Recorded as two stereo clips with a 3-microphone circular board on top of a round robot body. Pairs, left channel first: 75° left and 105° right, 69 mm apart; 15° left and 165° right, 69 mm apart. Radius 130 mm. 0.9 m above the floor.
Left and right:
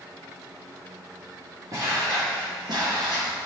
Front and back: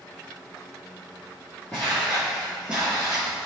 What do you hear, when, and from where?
1.7 s footsteps: 55° right, 1.2 m; by 3.5 s 125° right, 1.1 m